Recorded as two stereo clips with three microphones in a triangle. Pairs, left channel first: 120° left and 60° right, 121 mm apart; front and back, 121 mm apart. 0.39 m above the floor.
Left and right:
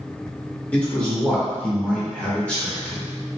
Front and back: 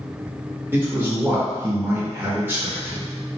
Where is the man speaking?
170° left, 0.8 m.